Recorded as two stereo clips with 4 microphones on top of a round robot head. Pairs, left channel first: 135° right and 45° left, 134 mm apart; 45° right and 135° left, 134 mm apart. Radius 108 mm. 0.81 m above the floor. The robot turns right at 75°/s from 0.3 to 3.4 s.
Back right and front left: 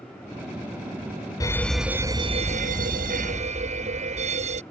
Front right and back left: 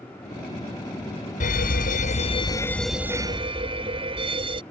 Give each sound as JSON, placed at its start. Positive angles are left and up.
{"t": 1.4, "sound": "a fire alarm", "azimuth_deg": -70}